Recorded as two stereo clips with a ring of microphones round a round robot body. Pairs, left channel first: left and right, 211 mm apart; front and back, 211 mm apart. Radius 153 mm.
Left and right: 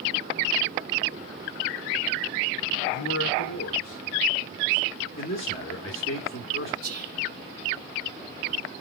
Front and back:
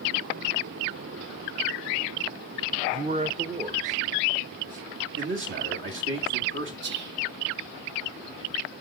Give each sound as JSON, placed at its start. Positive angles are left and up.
{"t": 2.9, "sound": "a man speaking", "azimuth_deg": 120, "distance_m": 0.6}
{"t": 5.2, "sound": "a man speaking", "azimuth_deg": 155, "distance_m": 2.0}
{"t": 6.8, "sound": "whispering", "azimuth_deg": -140, "distance_m": 0.6}